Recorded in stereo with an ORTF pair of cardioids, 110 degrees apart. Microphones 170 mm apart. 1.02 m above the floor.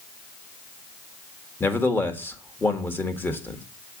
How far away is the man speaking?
About 1.6 m.